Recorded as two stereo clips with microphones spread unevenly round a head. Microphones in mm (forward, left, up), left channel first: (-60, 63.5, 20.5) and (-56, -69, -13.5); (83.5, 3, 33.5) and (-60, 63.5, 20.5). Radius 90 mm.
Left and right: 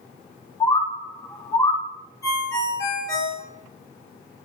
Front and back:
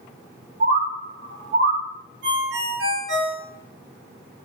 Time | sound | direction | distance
0.6 | a bird | 140° left | 0.5 m
2.2 | a ringtone | 155° left | 1.6 m